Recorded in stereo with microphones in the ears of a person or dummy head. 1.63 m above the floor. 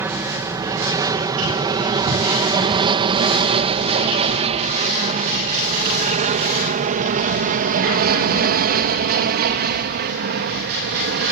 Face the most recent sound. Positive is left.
turn(degrees=-55)  # may be behind; listen again after turning